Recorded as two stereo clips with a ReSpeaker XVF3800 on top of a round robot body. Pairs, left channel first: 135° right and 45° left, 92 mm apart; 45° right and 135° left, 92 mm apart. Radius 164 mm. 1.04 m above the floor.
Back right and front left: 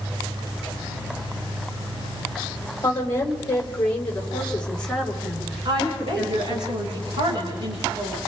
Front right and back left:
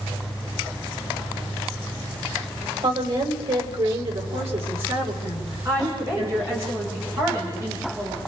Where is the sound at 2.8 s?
160° left, 5 m; by 6.7 s 125° left, 4.5 m.